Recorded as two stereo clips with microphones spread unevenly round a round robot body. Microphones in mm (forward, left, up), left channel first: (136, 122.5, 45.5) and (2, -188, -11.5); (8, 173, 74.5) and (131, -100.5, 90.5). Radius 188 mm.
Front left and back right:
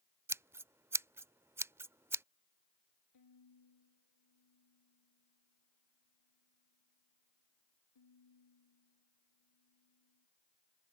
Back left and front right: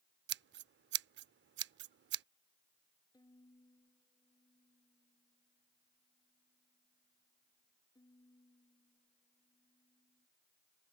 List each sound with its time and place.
0.3 s scissors: 25° right
3.1 s a violin: 35° left